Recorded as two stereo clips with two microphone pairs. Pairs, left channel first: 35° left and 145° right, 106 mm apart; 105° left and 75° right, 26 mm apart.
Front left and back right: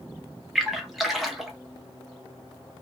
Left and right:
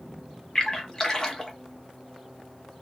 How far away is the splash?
About 1.0 m.